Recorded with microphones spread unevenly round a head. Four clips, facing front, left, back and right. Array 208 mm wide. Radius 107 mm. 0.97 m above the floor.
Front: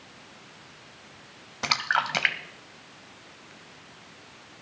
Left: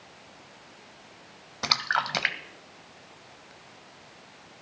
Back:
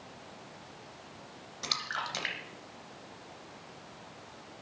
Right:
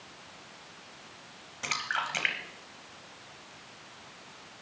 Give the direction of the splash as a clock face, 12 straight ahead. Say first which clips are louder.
Left 5 dB, front 11 dB; 11 o'clock.